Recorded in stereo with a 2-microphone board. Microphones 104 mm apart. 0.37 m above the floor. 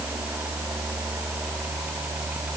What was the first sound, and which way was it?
Only background noise.